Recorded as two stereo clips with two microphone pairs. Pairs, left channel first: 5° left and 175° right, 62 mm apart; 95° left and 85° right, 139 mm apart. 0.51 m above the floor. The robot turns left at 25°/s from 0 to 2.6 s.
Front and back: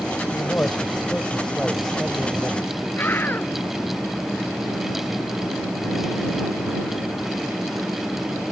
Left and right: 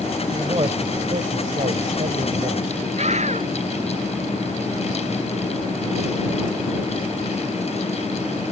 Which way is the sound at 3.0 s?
50° right.